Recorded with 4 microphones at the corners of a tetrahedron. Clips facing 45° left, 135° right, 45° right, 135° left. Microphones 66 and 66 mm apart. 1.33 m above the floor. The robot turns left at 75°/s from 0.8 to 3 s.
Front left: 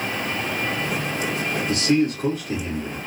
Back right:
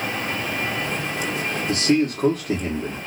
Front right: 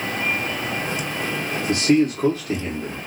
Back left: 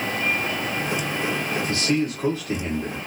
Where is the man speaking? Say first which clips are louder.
Back right 1 dB, front right 8 dB; 70° right, 1.6 m; by 3.0 s 165° right, 1.6 m.